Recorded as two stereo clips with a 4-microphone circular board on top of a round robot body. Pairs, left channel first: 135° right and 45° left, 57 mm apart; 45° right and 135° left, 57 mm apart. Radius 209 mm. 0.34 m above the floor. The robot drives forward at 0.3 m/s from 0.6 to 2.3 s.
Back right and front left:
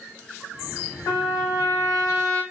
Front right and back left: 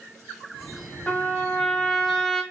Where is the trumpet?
110° right, 0.6 m; by 2.4 s 135° right, 0.8 m.